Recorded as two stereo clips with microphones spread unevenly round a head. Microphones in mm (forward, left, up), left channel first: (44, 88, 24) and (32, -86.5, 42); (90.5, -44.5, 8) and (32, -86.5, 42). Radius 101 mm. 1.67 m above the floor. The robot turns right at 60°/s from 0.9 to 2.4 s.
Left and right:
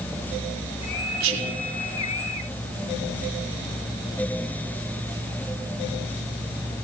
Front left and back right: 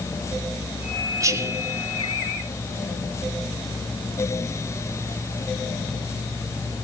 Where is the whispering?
130° right, 0.9 m; by 1.6 s 105° right, 0.9 m.